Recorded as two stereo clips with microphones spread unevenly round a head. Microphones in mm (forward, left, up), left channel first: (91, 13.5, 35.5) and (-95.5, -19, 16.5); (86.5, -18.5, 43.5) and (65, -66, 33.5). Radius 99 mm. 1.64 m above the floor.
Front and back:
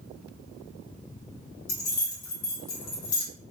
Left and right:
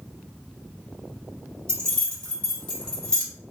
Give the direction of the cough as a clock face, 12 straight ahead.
I don't hear a cough.